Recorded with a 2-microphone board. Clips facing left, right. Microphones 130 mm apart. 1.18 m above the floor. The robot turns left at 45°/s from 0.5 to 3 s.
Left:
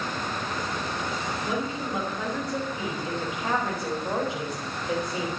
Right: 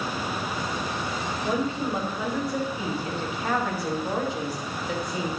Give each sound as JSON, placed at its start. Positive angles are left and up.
{"t": 1.4, "sound": "a woman speaking", "azimuth_deg": -130, "distance_m": 5.0}